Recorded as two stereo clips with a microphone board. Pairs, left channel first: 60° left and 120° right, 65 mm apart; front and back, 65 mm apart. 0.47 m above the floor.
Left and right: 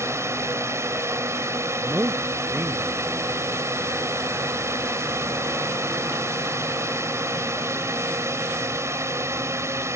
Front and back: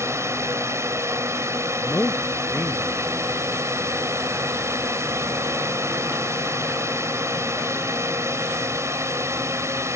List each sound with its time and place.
0.0 s a drone: 150° right
1.8 s a man speaking: 60° right